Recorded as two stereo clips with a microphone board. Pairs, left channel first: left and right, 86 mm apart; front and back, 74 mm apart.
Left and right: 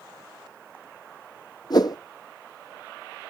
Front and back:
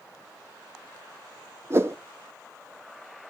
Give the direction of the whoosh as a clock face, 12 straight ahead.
8 o'clock.